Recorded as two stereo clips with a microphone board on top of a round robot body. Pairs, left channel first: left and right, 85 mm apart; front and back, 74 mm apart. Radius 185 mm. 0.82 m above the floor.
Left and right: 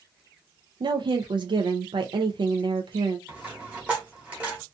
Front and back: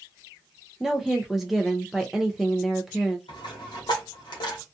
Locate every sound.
0.8 s a woman speaking: 90° right, 0.6 m
3.3 s a dropped coin: 15° right, 0.9 m